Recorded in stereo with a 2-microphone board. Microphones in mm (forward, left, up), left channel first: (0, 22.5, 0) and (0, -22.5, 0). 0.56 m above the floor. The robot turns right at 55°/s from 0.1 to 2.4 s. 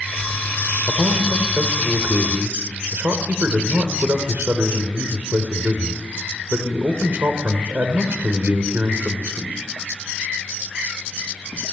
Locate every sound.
0.9 s a man speaking: 145° right, 2.5 m; by 9.6 s 60° right, 2.5 m